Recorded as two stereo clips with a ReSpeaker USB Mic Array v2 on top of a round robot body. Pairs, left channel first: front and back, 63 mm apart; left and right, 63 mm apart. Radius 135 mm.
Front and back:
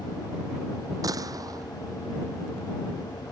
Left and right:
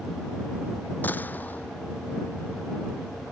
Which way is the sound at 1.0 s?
155° left.